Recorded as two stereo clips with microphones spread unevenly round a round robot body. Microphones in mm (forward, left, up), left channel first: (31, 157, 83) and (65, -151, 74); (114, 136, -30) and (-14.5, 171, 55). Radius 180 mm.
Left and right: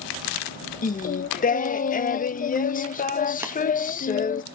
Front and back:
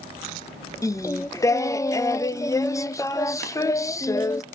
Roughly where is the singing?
Ahead left.